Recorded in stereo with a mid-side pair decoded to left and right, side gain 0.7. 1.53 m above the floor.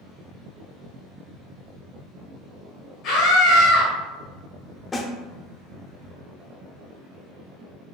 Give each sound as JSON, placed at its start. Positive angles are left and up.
{"t": 3.0, "sound": "a scream", "azimuth_deg": 70, "distance_m": 1.6}
{"t": 4.9, "sound": "a snare drum", "azimuth_deg": 25, "distance_m": 0.6}